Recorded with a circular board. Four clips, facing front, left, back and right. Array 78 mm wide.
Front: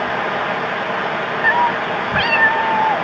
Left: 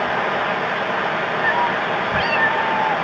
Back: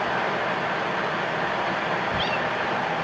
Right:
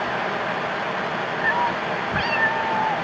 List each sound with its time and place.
1.4 s a cat meowing: 5° left